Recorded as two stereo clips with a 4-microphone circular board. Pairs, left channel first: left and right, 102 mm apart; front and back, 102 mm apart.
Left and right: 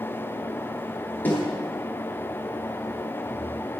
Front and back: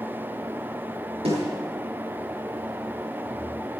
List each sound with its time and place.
1.2 s a snare drum: 160° left, 9.5 m